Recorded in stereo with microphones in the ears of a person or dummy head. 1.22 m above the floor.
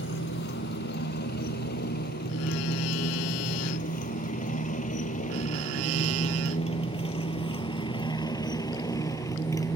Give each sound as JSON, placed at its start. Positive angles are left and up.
{"t": 0.0, "sound": "a motorcycle", "side_deg": 55}